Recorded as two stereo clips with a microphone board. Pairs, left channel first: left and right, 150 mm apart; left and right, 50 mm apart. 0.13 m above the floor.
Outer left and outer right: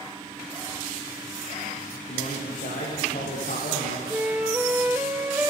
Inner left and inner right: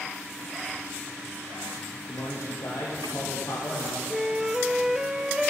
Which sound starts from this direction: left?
A man speaking, at 2.1 s.